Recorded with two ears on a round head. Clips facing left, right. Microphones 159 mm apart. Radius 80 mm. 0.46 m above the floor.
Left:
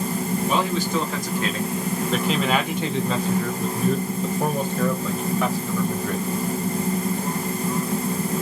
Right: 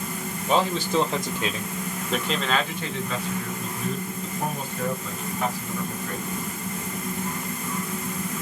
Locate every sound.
0.5 s a man speaking: 30° right (ahead or behind), 1.5 m; by 6.2 s 65° left (ahead or behind), 2 m